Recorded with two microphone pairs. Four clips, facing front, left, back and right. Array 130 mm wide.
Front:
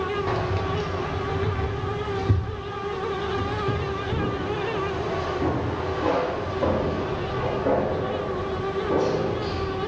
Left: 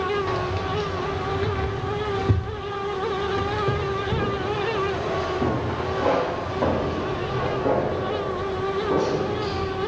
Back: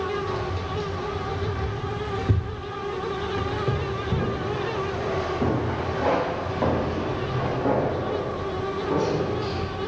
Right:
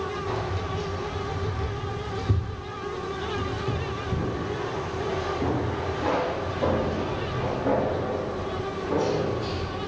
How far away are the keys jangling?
About 1.0 m.